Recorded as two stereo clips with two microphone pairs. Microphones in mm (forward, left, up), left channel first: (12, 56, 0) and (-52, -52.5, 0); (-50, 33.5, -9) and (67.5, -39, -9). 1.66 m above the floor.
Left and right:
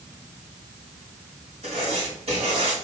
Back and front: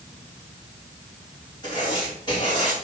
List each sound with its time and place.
1.6 s writing: 150° right, 4 m